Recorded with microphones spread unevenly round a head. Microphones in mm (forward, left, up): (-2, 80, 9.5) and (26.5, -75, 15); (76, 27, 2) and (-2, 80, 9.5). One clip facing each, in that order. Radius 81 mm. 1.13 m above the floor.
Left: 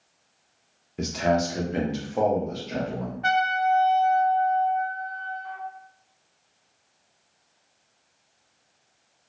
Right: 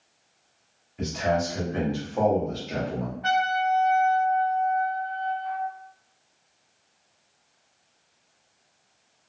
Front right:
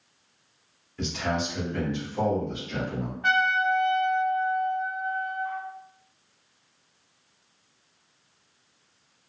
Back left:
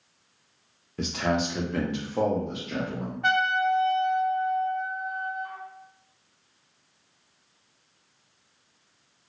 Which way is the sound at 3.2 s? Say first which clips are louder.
Left 1 dB, even; 130° left.